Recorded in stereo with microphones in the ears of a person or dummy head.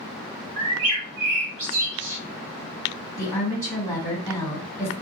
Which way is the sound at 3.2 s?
15° left (ahead or behind).